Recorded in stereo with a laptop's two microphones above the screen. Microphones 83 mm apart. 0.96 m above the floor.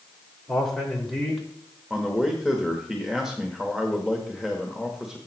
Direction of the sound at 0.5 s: 5° left (ahead or behind).